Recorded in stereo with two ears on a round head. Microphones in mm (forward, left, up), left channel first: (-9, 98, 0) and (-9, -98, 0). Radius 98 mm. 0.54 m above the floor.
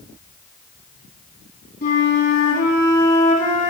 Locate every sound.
1.8 s a flute: 45° left (ahead or behind), 1.8 m